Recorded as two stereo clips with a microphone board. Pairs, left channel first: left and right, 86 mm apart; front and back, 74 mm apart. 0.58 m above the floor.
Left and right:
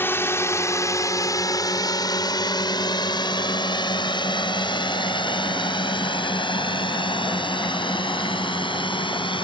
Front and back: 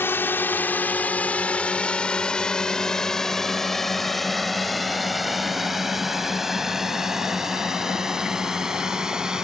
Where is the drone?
40° left; by 9.4 s 100° left.